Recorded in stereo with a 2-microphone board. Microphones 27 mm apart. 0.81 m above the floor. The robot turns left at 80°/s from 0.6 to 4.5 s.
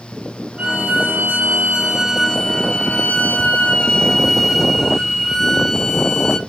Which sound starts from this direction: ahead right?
A violin, at 0.6 s.